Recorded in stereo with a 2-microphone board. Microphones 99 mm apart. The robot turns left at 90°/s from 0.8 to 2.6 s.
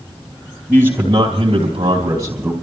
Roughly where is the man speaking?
Ahead.